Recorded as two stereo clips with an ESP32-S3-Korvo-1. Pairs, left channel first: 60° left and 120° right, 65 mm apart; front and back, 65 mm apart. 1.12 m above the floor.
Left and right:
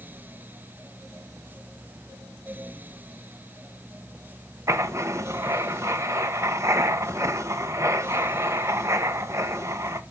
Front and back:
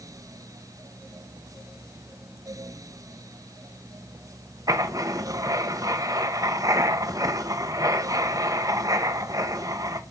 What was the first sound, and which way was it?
Writing, 160° right.